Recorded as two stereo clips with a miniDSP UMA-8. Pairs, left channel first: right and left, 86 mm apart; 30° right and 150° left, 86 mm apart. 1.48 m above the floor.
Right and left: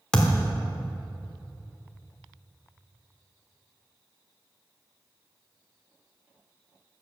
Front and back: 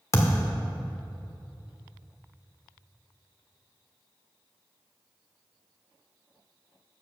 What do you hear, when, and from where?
0.1 s a thud: 20° right, 1.2 m